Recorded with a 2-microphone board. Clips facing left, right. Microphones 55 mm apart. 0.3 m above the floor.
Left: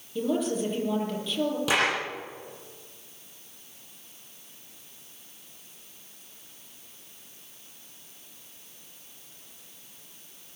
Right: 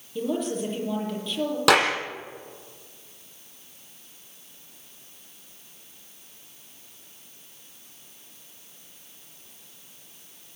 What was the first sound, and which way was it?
A woman speaking, centre (ahead or behind).